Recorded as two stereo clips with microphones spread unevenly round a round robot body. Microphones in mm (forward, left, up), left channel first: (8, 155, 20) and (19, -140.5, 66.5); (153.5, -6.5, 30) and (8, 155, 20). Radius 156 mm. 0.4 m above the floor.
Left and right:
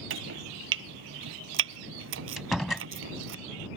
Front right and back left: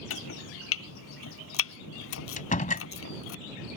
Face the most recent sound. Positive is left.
turn(degrees=5)